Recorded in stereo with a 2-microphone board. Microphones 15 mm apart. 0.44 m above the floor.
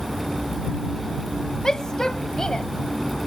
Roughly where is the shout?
Left.